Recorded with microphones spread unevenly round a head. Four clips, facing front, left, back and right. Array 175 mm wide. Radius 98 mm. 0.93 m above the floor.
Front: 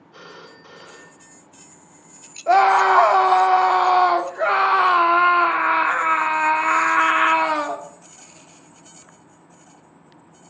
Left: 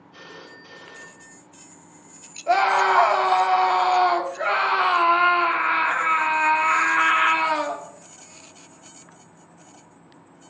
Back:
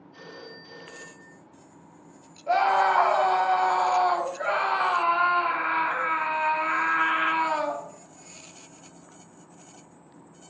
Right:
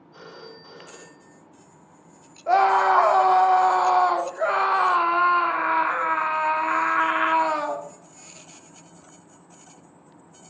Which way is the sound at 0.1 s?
5° right.